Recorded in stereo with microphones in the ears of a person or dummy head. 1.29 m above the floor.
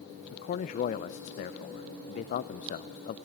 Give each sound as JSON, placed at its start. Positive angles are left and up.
{"t": 0.3, "sound": "a man speaking", "side_deg": 40, "distance_m": 0.5}